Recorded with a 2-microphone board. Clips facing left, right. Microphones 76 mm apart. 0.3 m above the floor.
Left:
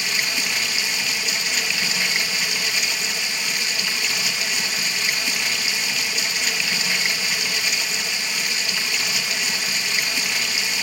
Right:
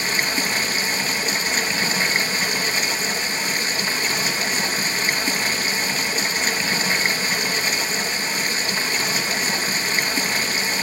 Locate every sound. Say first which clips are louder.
0.0 s running water: right 3 dB; 35° right (ahead or behind), 0.9 m